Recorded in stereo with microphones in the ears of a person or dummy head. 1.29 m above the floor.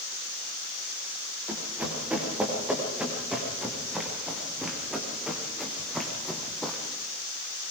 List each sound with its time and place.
1.5 s running footsteps: 5° right (ahead or behind), 7.5 m; by 6.8 s 5° left (ahead or behind), 3.5 m